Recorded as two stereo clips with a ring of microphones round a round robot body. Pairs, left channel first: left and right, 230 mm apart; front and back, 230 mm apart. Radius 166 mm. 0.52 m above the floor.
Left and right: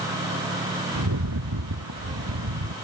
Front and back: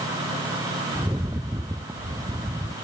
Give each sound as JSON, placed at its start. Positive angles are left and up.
{"t": 0.9, "sound": "a rattle", "azimuth_deg": -100}